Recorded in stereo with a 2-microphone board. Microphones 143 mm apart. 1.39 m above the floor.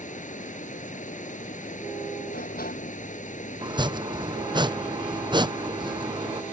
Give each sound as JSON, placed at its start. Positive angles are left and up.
{"t": 0.0, "sound": "running water", "side_deg": 55}
{"t": 2.3, "sound": "a sliding door", "side_deg": 85}
{"t": 3.6, "sound": "chopping", "side_deg": -30}